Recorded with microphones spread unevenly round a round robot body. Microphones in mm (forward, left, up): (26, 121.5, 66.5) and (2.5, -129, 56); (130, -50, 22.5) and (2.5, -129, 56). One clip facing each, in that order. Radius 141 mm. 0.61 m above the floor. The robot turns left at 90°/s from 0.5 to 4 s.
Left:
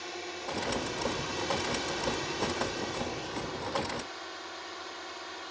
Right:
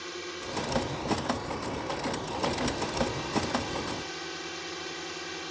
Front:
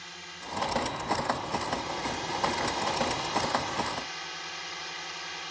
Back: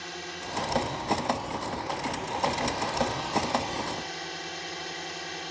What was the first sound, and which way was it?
A drone, 160° right.